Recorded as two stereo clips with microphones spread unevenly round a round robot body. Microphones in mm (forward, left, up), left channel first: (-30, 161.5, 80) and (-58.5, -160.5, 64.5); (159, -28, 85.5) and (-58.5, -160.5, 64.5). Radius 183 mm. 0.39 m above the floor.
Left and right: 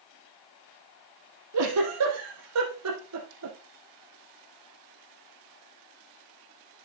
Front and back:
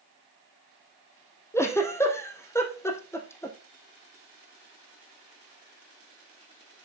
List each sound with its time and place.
1.5 s a giggle: 50° right, 3.5 m